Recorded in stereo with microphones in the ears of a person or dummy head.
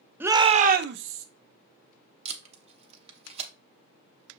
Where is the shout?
10° right (ahead or behind), 0.6 m; by 1.2 s 80° right, 0.8 m.